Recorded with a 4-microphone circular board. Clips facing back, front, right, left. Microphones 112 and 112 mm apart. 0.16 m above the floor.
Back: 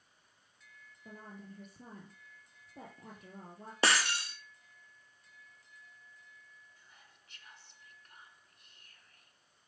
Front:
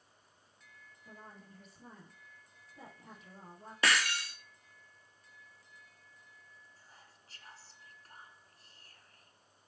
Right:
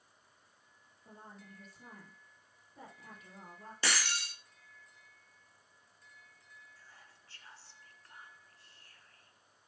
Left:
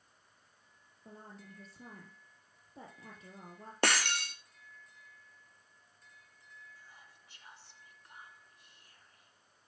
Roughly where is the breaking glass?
Behind left.